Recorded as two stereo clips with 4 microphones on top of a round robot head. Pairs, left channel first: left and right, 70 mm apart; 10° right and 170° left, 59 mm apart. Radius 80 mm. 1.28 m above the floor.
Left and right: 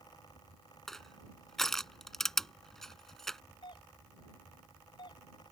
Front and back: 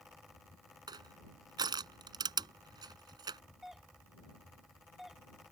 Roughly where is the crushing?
Behind.